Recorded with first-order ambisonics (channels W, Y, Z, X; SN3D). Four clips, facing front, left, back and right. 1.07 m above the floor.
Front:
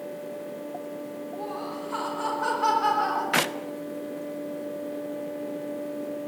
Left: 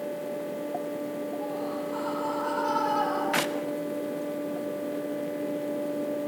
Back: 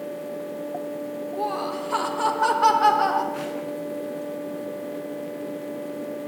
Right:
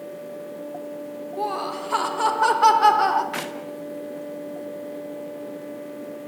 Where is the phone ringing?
I don't hear a phone ringing.